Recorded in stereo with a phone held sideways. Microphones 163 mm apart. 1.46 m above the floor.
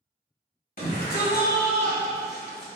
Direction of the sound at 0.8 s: 60° left (ahead or behind).